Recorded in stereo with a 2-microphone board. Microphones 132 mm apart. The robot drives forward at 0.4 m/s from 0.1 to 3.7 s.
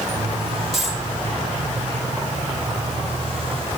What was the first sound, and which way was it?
A dropped coin, centre (ahead or behind).